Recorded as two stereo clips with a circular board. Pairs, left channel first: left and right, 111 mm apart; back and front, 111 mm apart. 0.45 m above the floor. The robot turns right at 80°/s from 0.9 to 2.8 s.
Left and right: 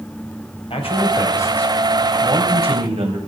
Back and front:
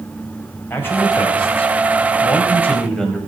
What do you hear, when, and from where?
0.7 s a man speaking: 110° left, 3 m; by 3.2 s 95° right, 3 m